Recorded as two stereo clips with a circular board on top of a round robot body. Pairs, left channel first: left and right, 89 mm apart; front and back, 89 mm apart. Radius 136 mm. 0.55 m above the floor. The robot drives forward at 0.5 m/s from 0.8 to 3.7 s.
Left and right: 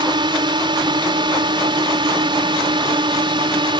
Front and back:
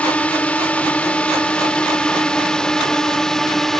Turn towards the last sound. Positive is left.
turn(degrees=-85)